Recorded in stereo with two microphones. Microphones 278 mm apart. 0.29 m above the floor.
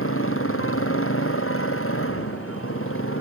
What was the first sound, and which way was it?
A motorcycle, 55° left (ahead or behind).